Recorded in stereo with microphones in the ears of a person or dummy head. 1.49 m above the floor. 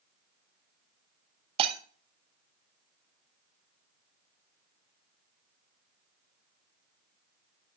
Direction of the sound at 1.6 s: 35° right (ahead or behind).